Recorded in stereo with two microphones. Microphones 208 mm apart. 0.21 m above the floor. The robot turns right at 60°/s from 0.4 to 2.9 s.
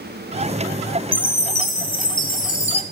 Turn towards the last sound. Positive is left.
turn(degrees=140)